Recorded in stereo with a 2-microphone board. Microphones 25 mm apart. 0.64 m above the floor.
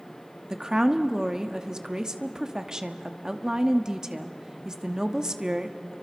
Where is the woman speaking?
20° right (ahead or behind), 1.1 m.